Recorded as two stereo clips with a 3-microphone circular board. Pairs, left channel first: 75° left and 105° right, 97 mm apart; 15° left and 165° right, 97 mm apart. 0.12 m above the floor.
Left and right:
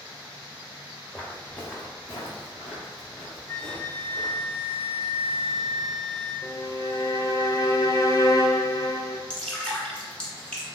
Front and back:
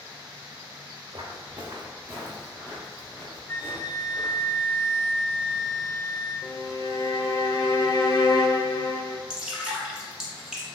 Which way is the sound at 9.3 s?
130° left.